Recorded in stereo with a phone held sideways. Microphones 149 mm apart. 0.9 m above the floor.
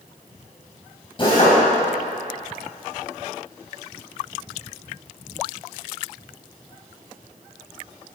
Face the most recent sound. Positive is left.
turn(degrees=35)  # may be behind; listen again after turning